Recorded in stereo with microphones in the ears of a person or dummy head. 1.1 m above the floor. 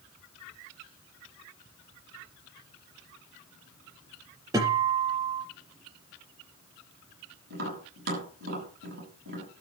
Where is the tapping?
60° right (ahead or behind), 6.5 m.